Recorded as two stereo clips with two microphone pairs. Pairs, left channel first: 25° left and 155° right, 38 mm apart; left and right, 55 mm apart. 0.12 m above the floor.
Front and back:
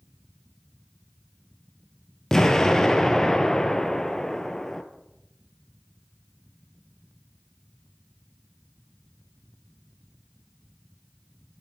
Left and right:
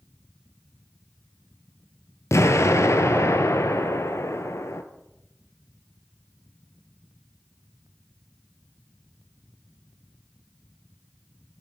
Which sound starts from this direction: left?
An explosion, at 2.3 s.